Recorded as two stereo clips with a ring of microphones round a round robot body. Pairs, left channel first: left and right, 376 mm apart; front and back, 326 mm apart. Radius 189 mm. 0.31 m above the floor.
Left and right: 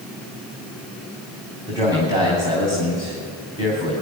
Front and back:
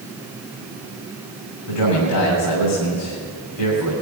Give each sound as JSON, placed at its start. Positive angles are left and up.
{"t": 1.7, "sound": "a man speaking", "azimuth_deg": -10, "distance_m": 3.0}